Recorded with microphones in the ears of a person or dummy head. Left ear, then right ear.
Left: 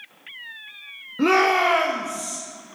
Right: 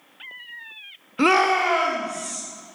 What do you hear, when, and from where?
1.2 s a shout: 35° right (ahead or behind), 0.5 m; by 2.4 s 35° left (ahead or behind), 1.5 m